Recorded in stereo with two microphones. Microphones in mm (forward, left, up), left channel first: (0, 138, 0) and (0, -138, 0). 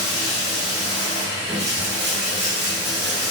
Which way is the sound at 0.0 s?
25° right (ahead or behind).